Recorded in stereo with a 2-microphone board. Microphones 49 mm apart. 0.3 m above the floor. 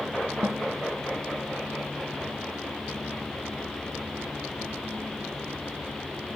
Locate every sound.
0.4 s a snare drum: 70° right (ahead or behind)